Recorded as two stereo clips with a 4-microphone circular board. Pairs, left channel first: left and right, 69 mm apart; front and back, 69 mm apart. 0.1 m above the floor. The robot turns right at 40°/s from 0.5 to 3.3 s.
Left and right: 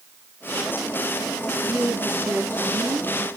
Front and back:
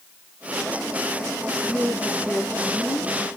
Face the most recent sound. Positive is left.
turn(degrees=-25)